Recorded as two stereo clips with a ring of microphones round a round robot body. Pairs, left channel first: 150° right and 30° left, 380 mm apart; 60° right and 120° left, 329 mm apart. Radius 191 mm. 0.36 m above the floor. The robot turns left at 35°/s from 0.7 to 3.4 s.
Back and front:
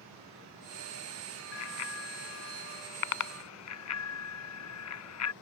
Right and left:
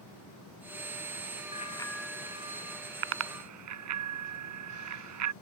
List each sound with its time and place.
1.5 s a bicycle bell: 130° right; by 5.3 s 165° left